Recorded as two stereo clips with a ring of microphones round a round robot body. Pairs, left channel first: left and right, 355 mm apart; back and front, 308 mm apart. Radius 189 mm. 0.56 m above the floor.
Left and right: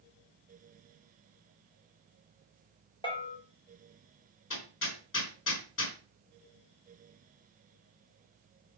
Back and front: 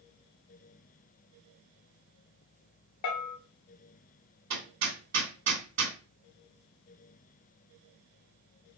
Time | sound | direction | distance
3.0 | a bell | 165° left | 2.5 m
4.5 | hammering | 35° left | 3 m